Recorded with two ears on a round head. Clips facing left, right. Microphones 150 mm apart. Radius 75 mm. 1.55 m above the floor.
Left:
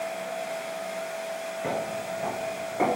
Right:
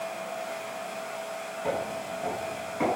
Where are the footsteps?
75° left (ahead or behind), 5 m; by 2.9 s 70° left (ahead or behind), 5 m.